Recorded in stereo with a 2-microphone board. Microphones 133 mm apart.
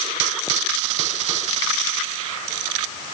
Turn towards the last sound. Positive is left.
No sound to turn to.